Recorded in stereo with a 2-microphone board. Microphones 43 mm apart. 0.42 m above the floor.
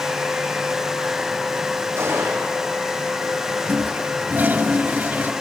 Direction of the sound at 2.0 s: 85° right.